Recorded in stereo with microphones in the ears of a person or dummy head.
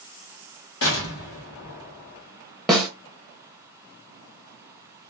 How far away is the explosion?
About 1.0 m.